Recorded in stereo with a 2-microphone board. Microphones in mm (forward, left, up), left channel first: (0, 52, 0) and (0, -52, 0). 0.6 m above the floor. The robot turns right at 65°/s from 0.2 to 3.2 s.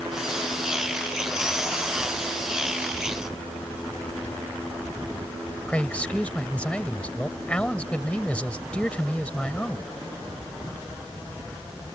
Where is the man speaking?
10° left (ahead or behind).